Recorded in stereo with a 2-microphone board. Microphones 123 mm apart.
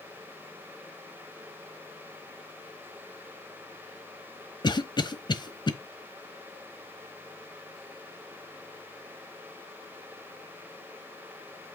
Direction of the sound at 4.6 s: 35° left (ahead or behind).